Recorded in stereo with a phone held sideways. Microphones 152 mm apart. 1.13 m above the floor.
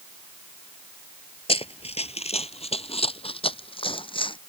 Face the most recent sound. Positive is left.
turn(degrees=35)  # may be behind; listen again after turning